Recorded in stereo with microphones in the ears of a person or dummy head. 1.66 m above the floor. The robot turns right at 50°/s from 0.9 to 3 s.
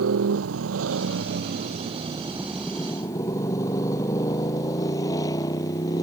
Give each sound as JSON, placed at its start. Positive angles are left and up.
{"t": 0.0, "sound": "a motorcycle", "side_deg": -80}